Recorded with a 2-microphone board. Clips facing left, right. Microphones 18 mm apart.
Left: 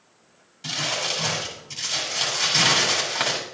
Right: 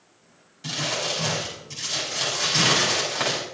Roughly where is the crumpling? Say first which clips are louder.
Left 1 dB; centre.